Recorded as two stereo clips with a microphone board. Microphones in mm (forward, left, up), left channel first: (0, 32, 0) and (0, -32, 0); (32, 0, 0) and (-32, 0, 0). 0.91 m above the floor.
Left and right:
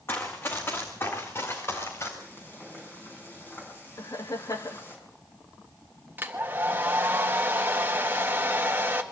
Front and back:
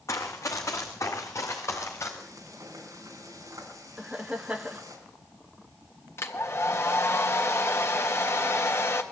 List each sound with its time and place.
0.1 s running footsteps: 40° left, 3 m; by 2.1 s 45° left, 5 m
2.2 s frying: 145° left, 4 m
4.0 s laughter: 105° left, 1.3 m
6.2 s a hair dryer: 40° right, 1.6 m